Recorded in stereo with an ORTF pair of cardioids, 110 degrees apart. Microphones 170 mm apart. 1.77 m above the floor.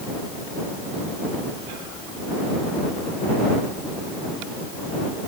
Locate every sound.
Only background noise.